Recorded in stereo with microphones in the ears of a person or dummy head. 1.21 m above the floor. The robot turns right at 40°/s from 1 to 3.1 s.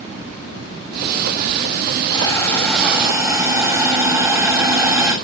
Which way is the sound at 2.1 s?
155° left.